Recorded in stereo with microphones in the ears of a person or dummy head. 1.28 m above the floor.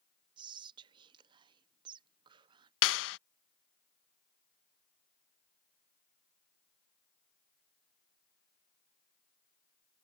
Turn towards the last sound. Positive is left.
turn(degrees=75)  # may be behind; listen again after turning